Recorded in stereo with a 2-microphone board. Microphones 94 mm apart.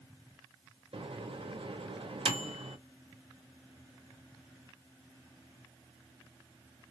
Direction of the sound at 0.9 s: 75° right (ahead or behind).